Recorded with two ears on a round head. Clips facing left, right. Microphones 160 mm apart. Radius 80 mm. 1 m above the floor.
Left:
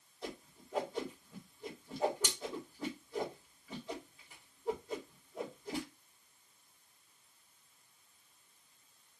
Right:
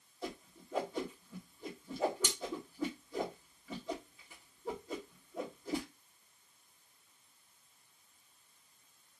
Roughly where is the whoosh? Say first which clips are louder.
Right 2 dB; right.